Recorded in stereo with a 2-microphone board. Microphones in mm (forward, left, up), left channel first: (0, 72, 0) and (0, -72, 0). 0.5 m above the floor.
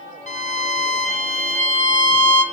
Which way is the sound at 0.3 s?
55° left (ahead or behind).